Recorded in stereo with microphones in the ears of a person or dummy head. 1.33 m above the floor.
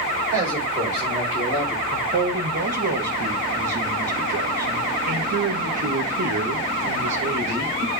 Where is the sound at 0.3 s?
25° right (ahead or behind), 5 m; by 1.8 s 15° right (ahead or behind), 4.5 m.